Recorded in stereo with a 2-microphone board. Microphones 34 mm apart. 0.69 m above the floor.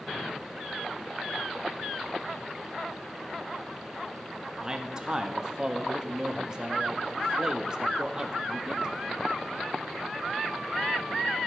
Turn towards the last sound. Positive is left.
turn(degrees=-20)  # may be behind; listen again after turning